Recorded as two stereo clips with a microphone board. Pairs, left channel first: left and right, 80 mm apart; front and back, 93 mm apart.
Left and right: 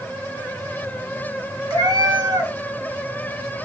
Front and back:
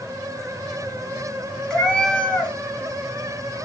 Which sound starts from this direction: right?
A cat meowing, at 1.7 s.